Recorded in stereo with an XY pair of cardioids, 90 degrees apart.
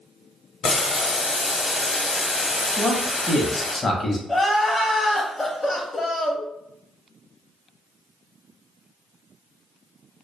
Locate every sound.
0.6 s boiling: 50° left, 0.7 m
2.8 s a man speaking: 25° left, 0.8 m
4.3 s crying: 20° left, 0.8 m